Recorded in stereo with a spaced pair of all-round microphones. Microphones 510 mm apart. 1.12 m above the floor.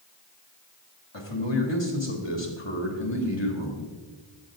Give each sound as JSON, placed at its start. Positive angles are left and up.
{"t": 1.1, "sound": "a man speaking", "side_deg": 55, "distance_m": 2.0}